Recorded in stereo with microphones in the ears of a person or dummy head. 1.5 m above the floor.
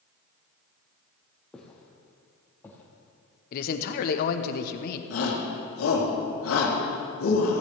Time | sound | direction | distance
1.5 | footsteps | 5° left (ahead or behind) | 3 m
3.5 | a man speaking | 55° left (ahead or behind) | 1.1 m
5.1 | a shout | 85° left | 3 m